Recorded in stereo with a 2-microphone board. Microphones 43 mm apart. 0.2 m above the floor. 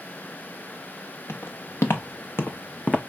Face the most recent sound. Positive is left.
turn(degrees=30)  # may be behind; listen again after turning